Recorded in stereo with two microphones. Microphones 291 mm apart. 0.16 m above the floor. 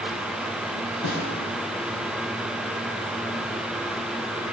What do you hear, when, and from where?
1.0 s a snare drum: 70° left (ahead or behind), 4 m